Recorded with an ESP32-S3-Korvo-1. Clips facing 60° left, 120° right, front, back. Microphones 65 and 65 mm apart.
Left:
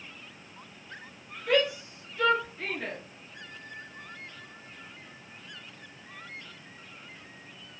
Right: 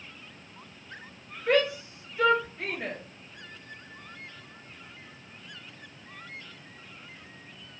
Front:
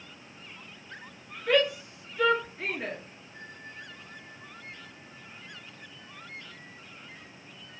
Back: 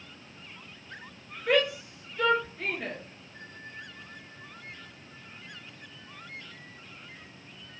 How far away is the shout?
About 1.3 m.